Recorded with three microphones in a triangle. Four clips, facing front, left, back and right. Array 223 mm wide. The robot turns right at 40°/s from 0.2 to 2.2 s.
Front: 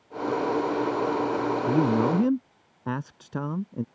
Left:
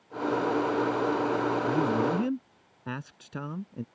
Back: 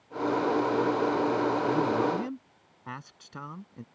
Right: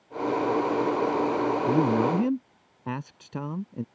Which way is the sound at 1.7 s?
45° right.